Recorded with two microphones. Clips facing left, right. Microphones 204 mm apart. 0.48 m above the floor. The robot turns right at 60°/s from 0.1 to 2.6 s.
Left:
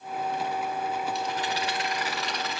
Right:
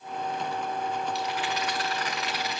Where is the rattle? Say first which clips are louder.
Even; 115° left, 3 m; by 2.6 s 155° right, 3 m.